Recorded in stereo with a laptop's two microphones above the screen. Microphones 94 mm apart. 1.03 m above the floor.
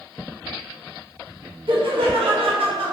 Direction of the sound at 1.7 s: 65° right (ahead or behind).